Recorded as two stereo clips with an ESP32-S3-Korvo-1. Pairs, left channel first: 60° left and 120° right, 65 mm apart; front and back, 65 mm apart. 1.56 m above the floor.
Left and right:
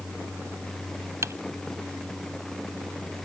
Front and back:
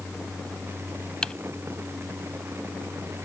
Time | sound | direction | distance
1.2 | typing on a keyboard | 80° right | ?